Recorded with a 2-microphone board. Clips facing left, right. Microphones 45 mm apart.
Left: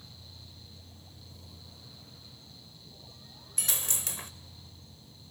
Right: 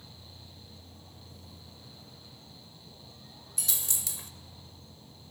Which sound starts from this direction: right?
An insect, at 0.0 s.